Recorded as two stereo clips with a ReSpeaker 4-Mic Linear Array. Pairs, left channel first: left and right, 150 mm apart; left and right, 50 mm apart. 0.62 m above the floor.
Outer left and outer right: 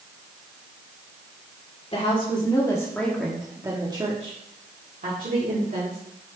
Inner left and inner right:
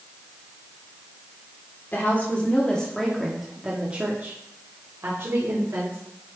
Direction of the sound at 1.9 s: 40° left (ahead or behind).